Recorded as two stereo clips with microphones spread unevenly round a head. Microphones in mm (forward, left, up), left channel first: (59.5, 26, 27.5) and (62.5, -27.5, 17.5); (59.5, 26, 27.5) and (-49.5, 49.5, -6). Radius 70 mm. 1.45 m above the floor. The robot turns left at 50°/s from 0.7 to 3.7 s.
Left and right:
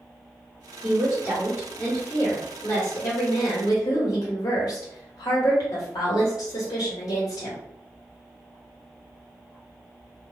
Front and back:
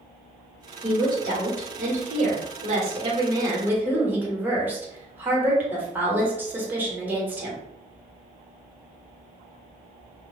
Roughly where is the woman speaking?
Behind right.